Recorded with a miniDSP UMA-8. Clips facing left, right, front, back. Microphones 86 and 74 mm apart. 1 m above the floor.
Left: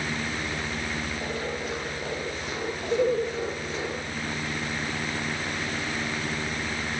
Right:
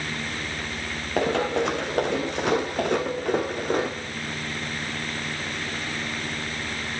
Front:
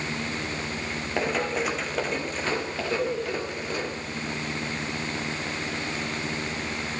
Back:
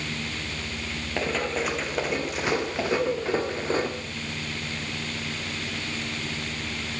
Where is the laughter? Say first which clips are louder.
Left 2 dB, back 1 dB; 85° left, 4 m.